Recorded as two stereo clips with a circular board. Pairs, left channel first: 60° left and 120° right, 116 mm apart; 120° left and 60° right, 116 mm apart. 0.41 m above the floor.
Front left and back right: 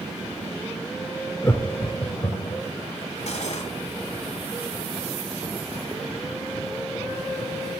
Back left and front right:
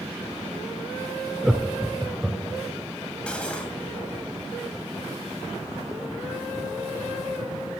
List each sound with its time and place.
1.4 s laughter: 20° left, 0.8 m; by 2.6 s 30° left, 1.6 m
3.3 s cutlery clinking: 40° left, 1.4 m